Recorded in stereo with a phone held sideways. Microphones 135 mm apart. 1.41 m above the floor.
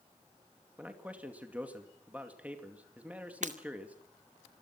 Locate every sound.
0.8 s a man speaking: 10° right (ahead or behind), 2.5 m
3.4 s breaking glass: 65° right (ahead or behind), 2 m